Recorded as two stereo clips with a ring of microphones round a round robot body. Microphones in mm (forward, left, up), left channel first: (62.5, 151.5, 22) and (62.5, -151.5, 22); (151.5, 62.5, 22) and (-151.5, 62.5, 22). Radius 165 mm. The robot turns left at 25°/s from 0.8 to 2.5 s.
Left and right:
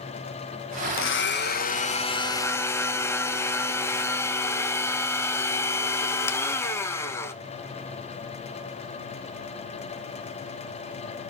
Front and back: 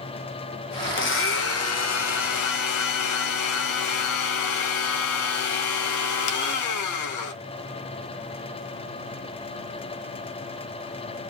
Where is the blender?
45° left, 1.8 m; by 7.3 s 10° left, 1.8 m.